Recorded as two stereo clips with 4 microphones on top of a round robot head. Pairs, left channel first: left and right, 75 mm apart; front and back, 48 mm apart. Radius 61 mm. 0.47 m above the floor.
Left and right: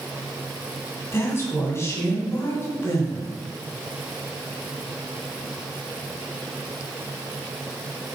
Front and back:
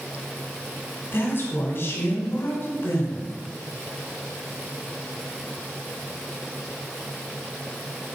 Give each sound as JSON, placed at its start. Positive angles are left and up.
{"t": 1.1, "sound": "a woman speaking", "azimuth_deg": 35, "distance_m": 3.0}